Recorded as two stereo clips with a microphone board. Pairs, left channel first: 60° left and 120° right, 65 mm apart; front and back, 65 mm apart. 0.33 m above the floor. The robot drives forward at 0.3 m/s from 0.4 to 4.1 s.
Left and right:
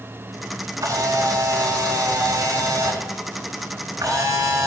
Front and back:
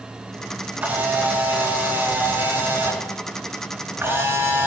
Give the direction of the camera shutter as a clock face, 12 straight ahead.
4 o'clock.